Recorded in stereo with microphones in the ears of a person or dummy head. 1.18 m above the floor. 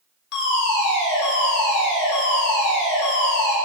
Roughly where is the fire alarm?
Left.